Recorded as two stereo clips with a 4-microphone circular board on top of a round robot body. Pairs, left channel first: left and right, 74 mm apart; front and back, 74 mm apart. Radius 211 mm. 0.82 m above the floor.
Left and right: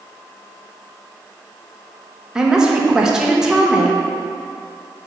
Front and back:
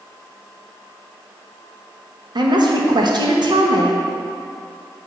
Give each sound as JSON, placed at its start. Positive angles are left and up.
{"t": 2.4, "sound": "a woman speaking", "azimuth_deg": -170, "distance_m": 1.2}